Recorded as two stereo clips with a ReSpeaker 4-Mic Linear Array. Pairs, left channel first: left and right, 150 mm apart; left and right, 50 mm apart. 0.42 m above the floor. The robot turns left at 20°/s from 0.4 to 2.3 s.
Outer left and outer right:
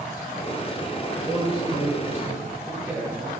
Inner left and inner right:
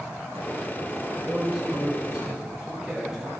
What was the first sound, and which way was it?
A man speaking, centre (ahead or behind).